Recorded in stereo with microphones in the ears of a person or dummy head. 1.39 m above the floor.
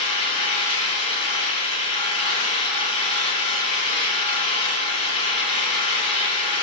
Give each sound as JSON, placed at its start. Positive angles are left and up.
{"t": 0.0, "sound": "an engine running", "side_deg": 30, "distance_m": 3.5}